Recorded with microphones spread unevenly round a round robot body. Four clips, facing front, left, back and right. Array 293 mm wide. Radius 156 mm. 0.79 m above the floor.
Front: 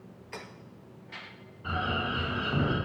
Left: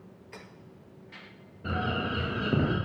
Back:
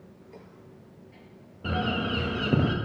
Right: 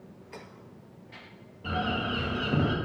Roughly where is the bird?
Behind.